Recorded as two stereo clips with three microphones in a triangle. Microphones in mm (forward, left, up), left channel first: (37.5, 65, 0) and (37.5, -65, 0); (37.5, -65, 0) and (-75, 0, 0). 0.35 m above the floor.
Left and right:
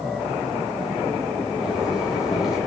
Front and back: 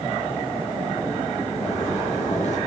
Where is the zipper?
5° right, 5.5 m.